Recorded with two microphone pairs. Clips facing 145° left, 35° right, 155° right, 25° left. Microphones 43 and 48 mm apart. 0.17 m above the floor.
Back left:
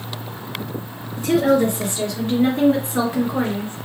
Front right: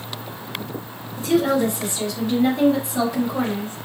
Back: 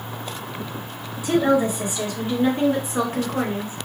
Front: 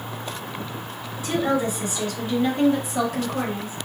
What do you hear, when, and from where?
1.2 s a woman speaking: 130° left, 3 m; by 3.9 s 170° left, 2.5 m